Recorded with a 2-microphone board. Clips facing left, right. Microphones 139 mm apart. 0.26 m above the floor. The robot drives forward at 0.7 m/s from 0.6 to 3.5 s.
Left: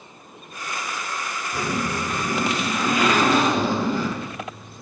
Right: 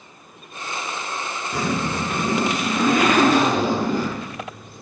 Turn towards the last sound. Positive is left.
turn(degrees=-45)  # may be behind; listen again after turning